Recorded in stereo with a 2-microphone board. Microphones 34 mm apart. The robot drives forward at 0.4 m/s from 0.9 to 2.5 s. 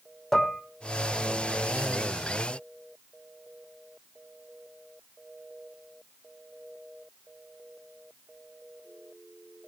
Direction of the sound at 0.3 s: 15° left (ahead or behind).